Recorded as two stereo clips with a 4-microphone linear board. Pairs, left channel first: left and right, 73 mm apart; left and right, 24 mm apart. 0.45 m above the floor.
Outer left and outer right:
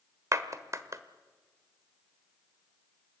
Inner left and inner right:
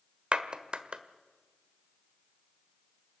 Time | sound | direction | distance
0.3 | a clap | 45° right (ahead or behind) | 1.4 m